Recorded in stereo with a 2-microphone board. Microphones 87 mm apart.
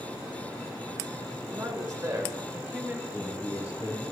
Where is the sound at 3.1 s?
35° right (ahead or behind), 3.5 m.